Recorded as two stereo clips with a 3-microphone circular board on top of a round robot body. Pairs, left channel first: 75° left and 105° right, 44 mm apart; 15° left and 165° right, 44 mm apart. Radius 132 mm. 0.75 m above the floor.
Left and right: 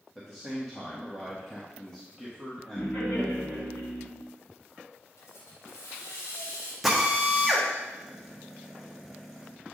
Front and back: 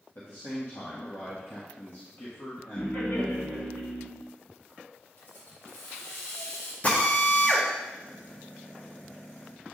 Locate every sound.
0.1 s a man speaking: 5° right, 1.5 m
2.8 s laughter: 50° left, 2.5 m
5.2 s a hiss: 55° left, 1.1 m
6.8 s a drill: 20° right, 1.5 m